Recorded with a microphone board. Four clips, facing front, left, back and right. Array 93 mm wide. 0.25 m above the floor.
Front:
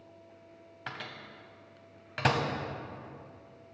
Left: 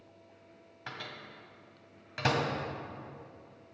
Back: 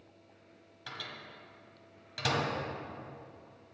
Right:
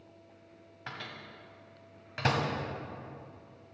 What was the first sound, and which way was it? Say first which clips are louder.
A microwave: even, front 3 dB; straight ahead.